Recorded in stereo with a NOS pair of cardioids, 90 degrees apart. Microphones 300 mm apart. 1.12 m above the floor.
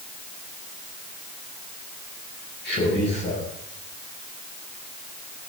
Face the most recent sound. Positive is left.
turn(degrees=40)